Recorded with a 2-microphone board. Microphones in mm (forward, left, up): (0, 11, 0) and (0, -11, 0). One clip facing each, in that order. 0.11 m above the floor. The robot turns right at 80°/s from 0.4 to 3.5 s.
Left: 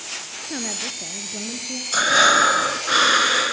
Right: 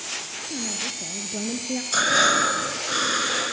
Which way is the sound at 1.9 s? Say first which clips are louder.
Left 4 dB; 10° left.